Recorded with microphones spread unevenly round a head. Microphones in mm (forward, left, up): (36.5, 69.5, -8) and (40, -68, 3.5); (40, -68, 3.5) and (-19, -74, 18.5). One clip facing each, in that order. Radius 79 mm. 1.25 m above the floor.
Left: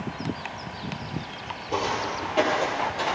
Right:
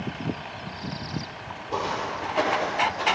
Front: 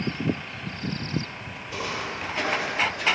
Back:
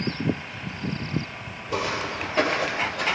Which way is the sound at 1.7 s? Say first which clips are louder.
Left 1 dB, back 4 dB; 160° left.